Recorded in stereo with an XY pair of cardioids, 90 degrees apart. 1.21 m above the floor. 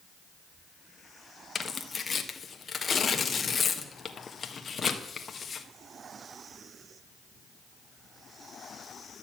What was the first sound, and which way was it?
Tearing paper, 40° left.